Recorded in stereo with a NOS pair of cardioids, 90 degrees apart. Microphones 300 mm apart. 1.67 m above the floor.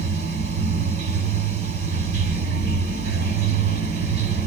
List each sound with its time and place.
0.0 s running water: 40° right, 1.1 m